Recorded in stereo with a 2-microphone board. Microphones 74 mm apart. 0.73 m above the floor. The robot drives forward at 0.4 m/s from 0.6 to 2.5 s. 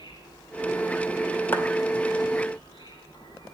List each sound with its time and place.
0.0 s an insect: 80° left, 7 m; by 3.5 s 75° left (ahead or behind), 7 m
1.5 s a clap: 25° left (ahead or behind), 2.5 m